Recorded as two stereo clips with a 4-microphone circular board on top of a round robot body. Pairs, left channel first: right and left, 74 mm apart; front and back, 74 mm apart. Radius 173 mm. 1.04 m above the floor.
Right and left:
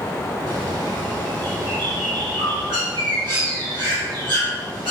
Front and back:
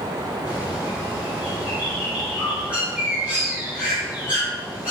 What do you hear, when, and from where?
0.5 s a bird: 110° left, 4 m